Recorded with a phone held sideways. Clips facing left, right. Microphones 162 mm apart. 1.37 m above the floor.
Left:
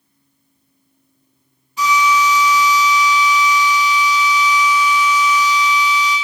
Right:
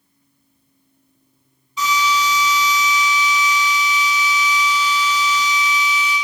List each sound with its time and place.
1.8 s a drill: 55° left (ahead or behind), 2 m